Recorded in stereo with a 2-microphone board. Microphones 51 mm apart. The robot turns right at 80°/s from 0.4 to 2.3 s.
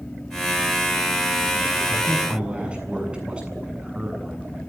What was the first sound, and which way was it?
A man speaking, 170° left.